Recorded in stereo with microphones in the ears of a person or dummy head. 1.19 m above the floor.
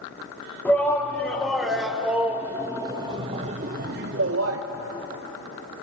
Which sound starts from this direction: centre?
A shout, at 0.7 s.